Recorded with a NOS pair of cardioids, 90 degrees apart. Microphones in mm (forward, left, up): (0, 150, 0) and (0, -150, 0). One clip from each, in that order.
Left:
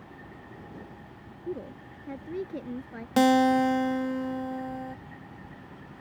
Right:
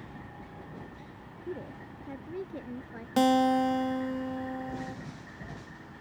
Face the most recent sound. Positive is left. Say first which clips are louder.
# left 3 dB
turn(degrees=15)